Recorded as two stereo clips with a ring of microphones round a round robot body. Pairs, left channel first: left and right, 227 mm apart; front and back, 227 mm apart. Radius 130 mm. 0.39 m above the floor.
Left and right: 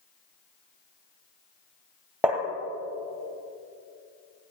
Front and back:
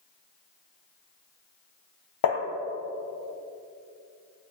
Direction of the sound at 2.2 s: 5° right.